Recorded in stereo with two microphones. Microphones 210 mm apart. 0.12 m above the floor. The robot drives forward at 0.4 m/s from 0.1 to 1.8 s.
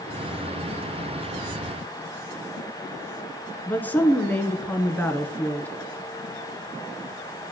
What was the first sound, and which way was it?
A woman speaking, 10° left (ahead or behind).